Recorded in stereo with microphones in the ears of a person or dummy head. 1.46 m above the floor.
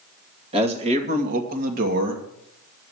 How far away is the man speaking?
About 2.5 m.